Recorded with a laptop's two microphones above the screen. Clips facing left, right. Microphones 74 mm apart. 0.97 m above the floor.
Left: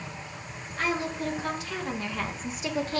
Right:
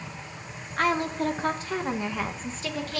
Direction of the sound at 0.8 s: 60° right (ahead or behind).